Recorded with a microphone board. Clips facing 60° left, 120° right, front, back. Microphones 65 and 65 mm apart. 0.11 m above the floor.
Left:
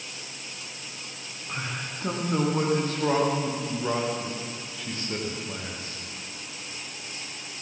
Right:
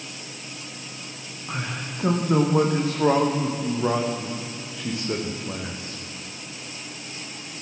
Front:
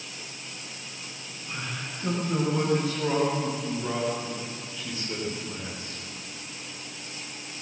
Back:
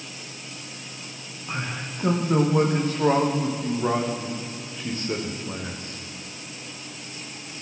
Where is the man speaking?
135° right, 6 m.